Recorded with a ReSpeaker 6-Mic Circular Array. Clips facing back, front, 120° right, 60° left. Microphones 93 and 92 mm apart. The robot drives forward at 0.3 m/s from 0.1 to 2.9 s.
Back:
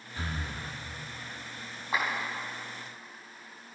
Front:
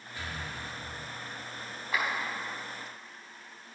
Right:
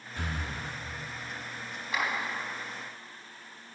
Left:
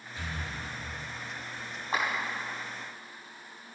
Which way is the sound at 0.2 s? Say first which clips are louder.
Back 2 dB, right 2 dB; 130° right.